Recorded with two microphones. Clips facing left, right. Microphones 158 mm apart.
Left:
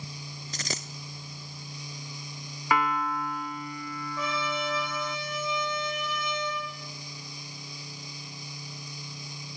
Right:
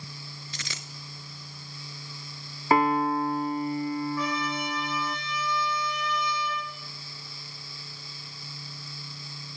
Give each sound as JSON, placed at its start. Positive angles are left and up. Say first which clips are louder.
{"t": 0.5, "sound": "a dropped coin", "louder": "left 9 dB", "side_deg": 40, "distance_m": 0.6}
{"t": 2.7, "sound": "a piano", "louder": "right 5 dB", "side_deg": -35, "distance_m": 0.5}
{"t": 4.2, "sound": "a trumpet", "louder": "right 2 dB", "side_deg": 25, "distance_m": 9.5}